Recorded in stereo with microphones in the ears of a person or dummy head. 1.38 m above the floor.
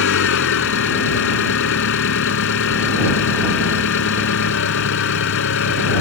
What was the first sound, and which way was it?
An engine running, 70° left (ahead or behind).